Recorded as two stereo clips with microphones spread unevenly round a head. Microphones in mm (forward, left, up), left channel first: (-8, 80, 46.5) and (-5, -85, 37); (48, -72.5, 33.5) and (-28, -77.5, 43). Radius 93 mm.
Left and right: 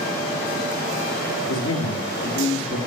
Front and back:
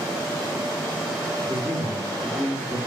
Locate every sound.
1.5 s a man speaking: 90° left, 2.5 m